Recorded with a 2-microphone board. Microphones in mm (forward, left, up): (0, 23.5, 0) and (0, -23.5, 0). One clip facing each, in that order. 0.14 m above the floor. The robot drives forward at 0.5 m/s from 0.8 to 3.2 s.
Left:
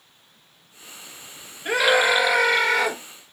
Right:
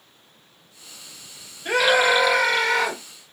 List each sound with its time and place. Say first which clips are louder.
1.6 s a scream: right 1 dB; 10° left (ahead or behind), 2.5 m